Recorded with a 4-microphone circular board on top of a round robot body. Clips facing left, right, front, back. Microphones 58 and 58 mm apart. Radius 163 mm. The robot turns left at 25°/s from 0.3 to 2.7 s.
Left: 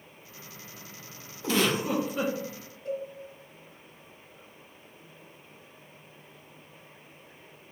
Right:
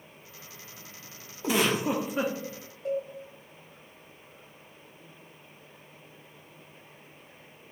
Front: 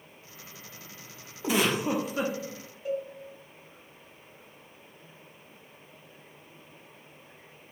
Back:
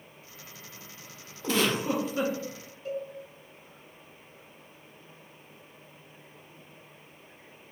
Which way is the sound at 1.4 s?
50° right.